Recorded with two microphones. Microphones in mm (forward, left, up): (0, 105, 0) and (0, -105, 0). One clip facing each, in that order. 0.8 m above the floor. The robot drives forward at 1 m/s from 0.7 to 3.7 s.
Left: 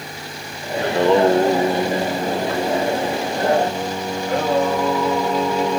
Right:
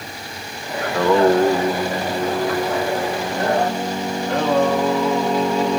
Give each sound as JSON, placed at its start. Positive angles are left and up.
{"t": 0.8, "sound": "singing", "side_deg": 30, "distance_m": 0.8}